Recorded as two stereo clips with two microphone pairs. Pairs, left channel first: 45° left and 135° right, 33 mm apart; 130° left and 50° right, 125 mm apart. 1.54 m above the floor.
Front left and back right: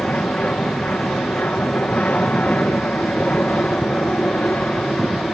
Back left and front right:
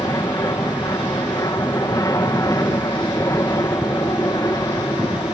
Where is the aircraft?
70° left.